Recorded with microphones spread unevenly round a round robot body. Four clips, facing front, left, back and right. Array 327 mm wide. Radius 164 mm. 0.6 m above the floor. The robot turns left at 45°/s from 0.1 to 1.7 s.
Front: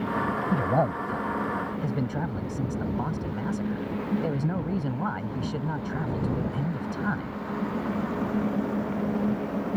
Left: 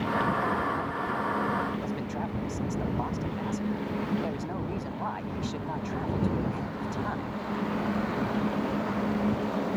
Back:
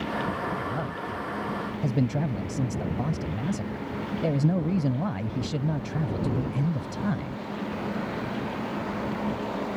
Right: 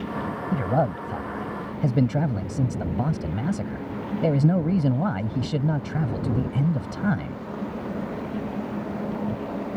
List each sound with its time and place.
0.5 s a man speaking: 50° right; by 7.4 s 105° right